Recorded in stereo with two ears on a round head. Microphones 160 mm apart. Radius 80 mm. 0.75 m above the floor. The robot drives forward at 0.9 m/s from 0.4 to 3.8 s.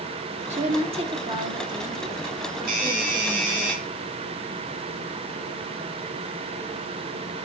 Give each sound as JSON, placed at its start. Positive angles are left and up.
{"t": 0.5, "sound": "a woman speaking", "side_deg": -40, "distance_m": 1.5}
{"t": 2.7, "sound": "a doorbell", "side_deg": -50, "distance_m": 8.0}